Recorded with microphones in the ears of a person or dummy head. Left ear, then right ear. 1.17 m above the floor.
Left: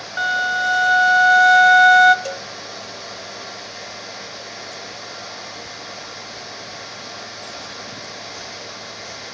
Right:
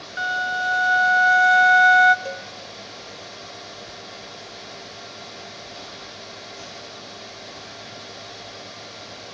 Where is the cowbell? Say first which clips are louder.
Left 3 dB; 30° left (ahead or behind), 0.5 m.